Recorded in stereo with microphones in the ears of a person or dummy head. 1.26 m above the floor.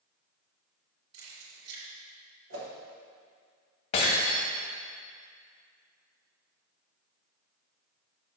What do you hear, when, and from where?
1.1 s keys jangling: 45° right (ahead or behind), 2.5 m
2.5 s a whoosh: 65° right (ahead or behind), 1.4 m
3.9 s breaking glass: 30° left (ahead or behind), 2 m